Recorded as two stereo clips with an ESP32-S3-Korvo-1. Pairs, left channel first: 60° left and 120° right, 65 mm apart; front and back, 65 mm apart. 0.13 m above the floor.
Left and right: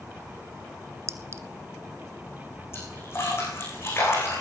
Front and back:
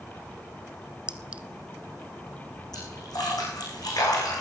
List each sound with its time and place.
1.1 s a clink: 115° right, 1.0 m
2.7 s a splash: 10° left, 8 m